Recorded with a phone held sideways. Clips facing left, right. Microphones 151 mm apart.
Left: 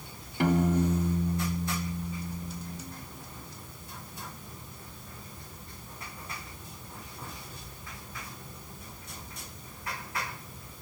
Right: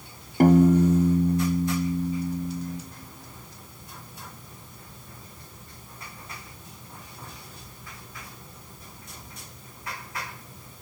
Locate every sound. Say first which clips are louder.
0.4 s a piano: right 9 dB; 45° right (ahead or behind), 0.6 m